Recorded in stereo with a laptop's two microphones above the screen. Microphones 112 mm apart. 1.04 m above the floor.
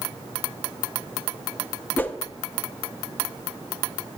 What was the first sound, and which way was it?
A whoosh, 15° left (ahead or behind).